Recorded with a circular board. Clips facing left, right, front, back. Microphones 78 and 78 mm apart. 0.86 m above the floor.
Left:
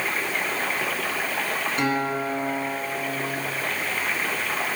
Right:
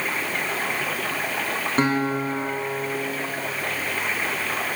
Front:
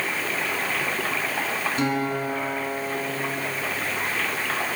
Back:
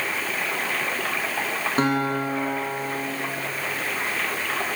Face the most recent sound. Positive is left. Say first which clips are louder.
# right 4 dB, back 4 dB
turn(degrees=-140)